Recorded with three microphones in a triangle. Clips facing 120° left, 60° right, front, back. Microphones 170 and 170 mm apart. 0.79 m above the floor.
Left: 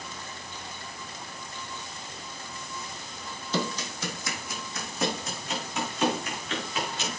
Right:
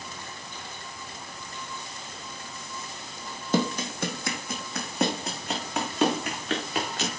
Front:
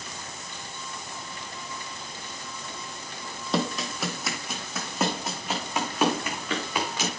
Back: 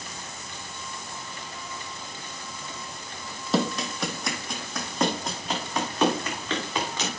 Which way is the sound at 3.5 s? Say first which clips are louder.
Right 5 dB, back 2 dB; 90° right.